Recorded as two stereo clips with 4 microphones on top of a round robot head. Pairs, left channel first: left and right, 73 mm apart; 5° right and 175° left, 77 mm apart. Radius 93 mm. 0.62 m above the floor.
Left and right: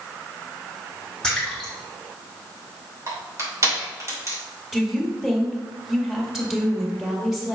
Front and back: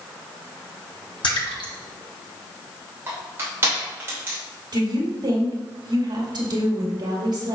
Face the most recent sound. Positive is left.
turn(degrees=-175)